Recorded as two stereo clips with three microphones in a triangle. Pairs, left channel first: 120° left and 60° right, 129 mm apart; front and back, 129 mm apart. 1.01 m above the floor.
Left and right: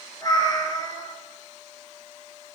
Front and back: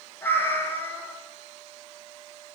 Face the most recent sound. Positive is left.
turn(degrees=70)